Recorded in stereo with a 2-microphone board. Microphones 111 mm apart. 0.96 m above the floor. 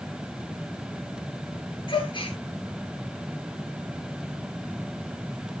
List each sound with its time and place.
1.9 s a gasp: 45° left (ahead or behind), 7 m